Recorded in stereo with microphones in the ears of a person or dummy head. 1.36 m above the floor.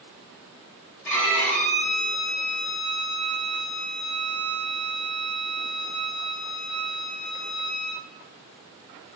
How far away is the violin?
About 3 m.